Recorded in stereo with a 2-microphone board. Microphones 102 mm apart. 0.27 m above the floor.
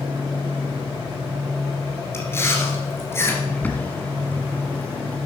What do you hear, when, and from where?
2.1 s chewing: 25° left (ahead or behind), 2 m
3.5 s a bird: 15° left (ahead or behind), 1.3 m